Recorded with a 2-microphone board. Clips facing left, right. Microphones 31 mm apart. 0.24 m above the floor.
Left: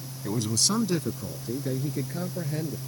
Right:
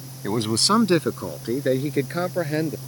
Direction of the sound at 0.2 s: 45° right (ahead or behind).